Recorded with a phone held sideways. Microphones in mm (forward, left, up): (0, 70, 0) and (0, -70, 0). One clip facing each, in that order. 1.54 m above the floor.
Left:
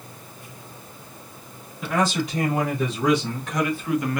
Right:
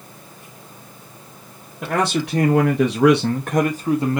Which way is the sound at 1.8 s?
70° right (ahead or behind).